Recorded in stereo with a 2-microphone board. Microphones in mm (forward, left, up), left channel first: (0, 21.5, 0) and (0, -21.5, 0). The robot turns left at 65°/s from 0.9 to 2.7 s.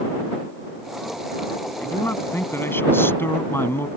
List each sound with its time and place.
1.8 s a man speaking: 130° left; by 3.9 s 70° left